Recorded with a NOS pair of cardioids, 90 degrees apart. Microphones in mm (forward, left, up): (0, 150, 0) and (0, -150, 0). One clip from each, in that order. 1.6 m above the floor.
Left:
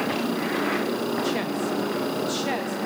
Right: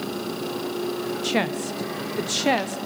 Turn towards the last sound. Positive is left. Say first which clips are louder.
# right 1 dB
turn(degrees=-35)